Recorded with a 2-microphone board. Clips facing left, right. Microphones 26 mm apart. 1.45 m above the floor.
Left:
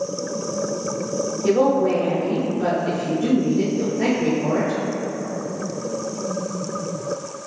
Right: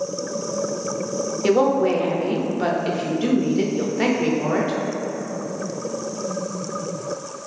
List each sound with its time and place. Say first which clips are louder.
1.4 s a woman speaking: even; 60° right (ahead or behind), 0.6 m